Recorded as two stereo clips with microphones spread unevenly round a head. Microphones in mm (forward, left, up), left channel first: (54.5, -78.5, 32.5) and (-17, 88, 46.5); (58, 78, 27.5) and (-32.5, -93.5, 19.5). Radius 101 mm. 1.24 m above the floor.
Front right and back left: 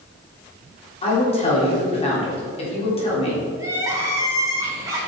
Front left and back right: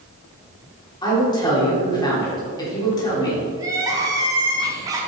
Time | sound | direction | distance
1.0 | a woman speaking | 10° right | 3.5 m
3.6 | crying | 175° left | 1.1 m